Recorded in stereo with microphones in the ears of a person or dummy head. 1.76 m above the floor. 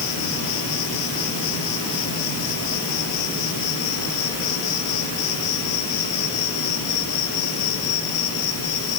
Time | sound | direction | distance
0.0 | an insect | 65° left (ahead or behind) | 4.5 m